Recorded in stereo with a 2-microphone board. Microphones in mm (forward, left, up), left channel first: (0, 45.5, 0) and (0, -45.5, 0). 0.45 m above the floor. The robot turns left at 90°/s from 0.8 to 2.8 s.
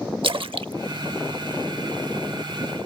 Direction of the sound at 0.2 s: 70° right (ahead or behind).